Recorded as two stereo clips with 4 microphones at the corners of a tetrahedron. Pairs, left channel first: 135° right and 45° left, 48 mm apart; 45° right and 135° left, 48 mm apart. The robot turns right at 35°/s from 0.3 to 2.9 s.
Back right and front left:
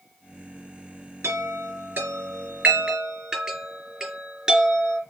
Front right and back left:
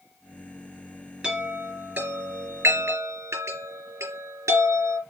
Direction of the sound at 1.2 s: 65° left.